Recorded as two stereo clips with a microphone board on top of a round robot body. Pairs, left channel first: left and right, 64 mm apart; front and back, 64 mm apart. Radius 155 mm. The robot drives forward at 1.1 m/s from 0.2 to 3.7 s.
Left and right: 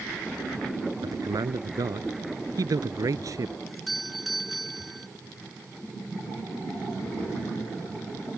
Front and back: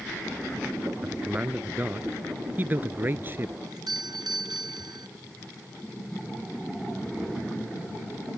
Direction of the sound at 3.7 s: Straight behind.